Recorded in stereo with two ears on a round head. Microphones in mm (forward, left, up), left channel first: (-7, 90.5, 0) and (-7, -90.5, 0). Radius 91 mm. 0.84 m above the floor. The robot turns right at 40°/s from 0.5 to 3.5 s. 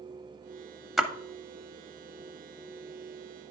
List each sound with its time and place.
1.0 s a splash: centre (ahead or behind), 0.7 m; by 1.1 s 5° right (ahead or behind), 0.7 m